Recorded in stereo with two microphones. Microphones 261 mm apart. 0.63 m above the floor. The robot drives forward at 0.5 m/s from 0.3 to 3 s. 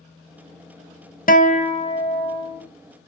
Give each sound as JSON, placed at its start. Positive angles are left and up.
{"t": 1.3, "sound": "a guitar", "side_deg": 35, "distance_m": 0.5}